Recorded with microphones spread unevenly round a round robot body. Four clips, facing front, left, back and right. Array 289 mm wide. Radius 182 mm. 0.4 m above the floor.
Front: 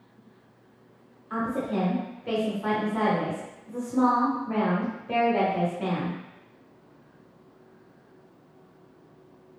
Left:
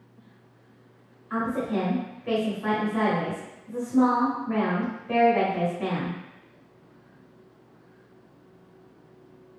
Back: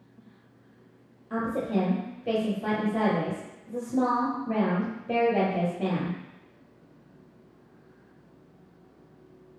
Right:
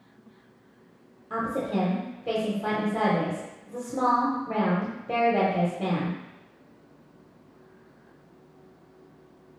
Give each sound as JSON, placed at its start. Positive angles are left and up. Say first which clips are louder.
{"t": 1.3, "sound": "a woman speaking", "louder": "left 1 dB, even", "azimuth_deg": -130, "distance_m": 1.0}